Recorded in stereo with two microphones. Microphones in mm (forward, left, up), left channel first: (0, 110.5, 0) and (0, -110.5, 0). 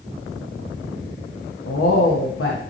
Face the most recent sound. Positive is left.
turn(degrees=85)